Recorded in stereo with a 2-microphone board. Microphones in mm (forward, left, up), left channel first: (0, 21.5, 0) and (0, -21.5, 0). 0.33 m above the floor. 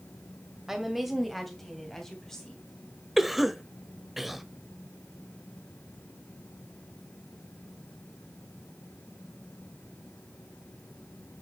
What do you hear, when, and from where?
0.7 s a woman speaking: 10° right (ahead or behind), 1.8 m; by 2.6 s 15° left (ahead or behind), 3 m
3.2 s a cough: 5° right (ahead or behind), 1.0 m